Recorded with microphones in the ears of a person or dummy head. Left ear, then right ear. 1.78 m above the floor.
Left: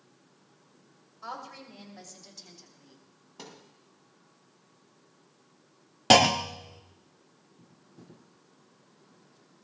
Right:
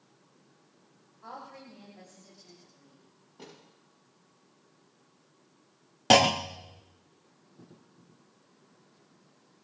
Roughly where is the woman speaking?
Left.